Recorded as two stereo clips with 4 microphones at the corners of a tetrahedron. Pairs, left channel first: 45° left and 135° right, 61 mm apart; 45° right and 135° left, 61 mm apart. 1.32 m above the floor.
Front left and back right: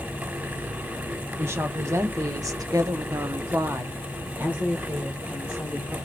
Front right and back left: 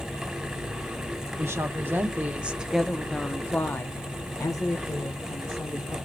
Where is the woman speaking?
175° left, 1.2 m; by 6.0 s 60° right, 1.9 m.